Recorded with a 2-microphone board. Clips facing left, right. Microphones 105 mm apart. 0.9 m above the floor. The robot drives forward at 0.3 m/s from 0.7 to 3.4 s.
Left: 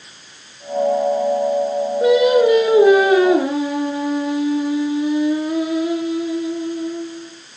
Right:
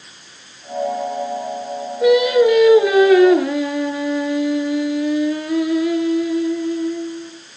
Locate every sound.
2.0 s singing: 35° left (ahead or behind), 5.5 m; by 7.3 s 30° left (ahead or behind), 6 m